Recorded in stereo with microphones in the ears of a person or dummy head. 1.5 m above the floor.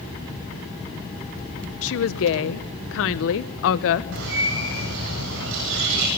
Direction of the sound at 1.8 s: 65° left (ahead or behind).